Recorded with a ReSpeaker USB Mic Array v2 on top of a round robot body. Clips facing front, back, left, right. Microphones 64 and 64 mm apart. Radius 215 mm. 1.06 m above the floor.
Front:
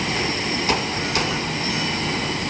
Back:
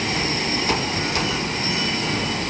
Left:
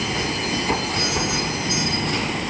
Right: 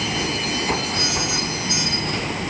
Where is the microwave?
No microwave in this recording.